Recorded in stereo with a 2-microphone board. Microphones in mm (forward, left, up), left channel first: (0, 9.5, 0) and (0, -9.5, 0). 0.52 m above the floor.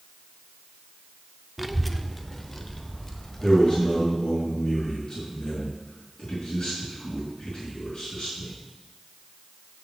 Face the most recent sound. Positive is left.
turn(degrees=35)  # may be behind; listen again after turning